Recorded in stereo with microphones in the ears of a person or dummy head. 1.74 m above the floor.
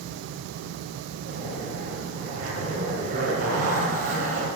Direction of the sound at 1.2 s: 40° right (ahead or behind).